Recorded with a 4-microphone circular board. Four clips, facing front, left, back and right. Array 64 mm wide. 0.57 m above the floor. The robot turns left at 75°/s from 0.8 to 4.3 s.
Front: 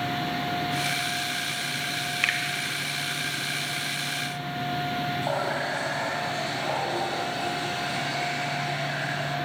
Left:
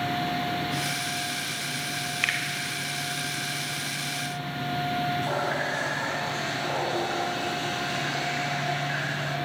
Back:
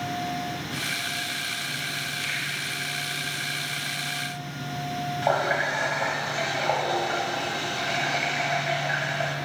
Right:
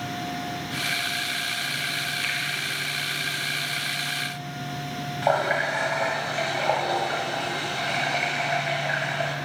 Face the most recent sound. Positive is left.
turn(degrees=-115)